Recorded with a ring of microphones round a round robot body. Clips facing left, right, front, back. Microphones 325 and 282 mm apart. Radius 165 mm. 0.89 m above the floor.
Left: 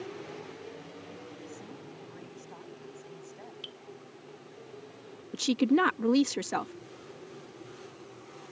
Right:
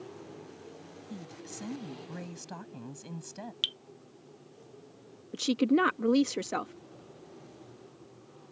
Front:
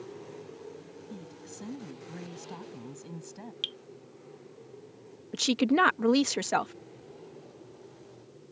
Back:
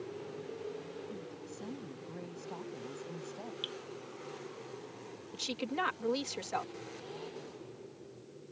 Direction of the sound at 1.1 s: 65° right.